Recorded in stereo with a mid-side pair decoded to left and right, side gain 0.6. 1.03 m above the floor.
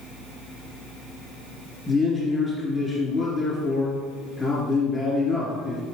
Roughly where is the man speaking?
Ahead left.